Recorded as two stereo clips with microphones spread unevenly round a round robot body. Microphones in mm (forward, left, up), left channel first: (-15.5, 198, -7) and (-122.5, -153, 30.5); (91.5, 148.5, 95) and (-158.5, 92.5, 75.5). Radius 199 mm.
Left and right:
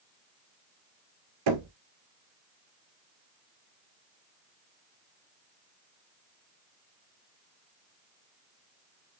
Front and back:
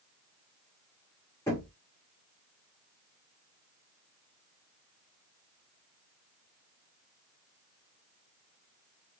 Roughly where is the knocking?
Right.